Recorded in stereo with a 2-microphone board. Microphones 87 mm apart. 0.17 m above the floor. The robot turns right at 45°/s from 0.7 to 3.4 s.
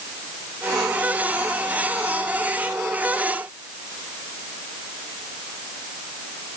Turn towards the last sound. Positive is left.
No sound to turn to.